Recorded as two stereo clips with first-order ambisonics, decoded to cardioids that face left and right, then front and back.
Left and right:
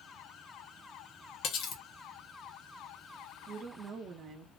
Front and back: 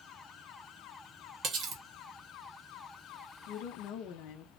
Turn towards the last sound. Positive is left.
turn(degrees=-30)